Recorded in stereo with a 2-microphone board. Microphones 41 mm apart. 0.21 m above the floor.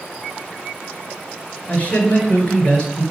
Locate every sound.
1.7 s a man speaking: 30° left (ahead or behind), 3 m